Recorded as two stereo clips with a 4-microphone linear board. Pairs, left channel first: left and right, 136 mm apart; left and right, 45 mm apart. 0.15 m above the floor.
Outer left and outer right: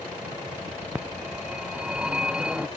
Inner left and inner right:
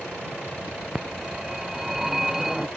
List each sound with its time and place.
0.9 s a phone ringing: 5° right (ahead or behind)